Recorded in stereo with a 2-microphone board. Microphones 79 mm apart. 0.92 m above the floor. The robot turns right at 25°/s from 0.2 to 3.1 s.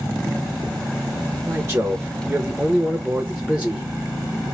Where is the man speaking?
55° right, 0.9 m; by 3.9 s 15° right, 0.9 m.